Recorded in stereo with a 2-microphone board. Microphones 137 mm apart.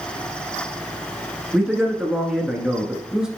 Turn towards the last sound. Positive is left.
turn(degrees=-5)  # may be behind; listen again after turning